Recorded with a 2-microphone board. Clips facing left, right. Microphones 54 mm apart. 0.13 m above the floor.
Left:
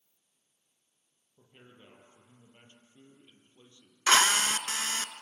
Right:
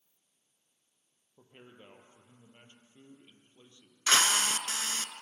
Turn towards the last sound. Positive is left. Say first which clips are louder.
# left 3 dB
turn(degrees=35)  # may be behind; listen again after turning